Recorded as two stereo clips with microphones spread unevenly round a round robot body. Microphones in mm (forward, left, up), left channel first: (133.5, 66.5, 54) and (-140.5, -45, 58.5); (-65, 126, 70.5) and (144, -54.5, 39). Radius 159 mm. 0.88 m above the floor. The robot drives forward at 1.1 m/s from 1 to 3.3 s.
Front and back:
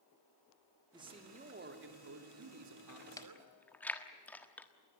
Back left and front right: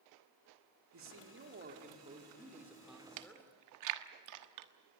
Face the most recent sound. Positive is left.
turn(degrees=-65)